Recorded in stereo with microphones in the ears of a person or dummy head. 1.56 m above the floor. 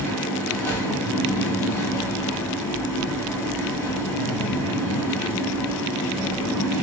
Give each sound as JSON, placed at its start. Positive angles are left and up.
{"t": 0.0, "sound": "a fan", "side_deg": 15, "distance_m": 4.5}